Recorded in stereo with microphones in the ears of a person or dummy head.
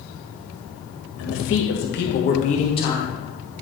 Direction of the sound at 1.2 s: 70° left (ahead or behind).